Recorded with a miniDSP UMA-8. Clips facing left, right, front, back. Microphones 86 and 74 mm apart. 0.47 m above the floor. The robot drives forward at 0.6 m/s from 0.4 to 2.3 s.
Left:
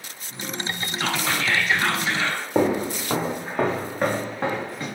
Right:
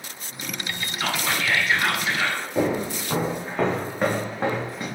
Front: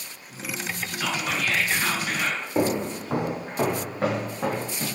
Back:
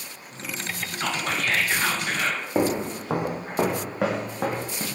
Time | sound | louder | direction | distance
1.0 | whispering | even, back 1 dB | 175° right | 0.8 m
2.5 | footsteps | left 3 dB, even | 130° left | 1.2 m